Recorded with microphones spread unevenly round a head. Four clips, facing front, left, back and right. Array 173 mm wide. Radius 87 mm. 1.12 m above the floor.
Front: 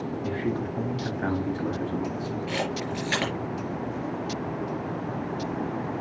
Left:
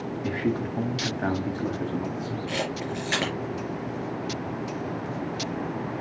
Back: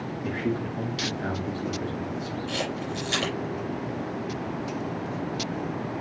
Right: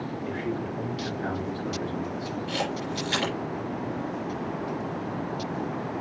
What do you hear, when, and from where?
0.2 s a man speaking: 95° left, 3 m; by 2.4 s 50° left, 3 m
2.5 s a camera shutter: 60° left, 5 m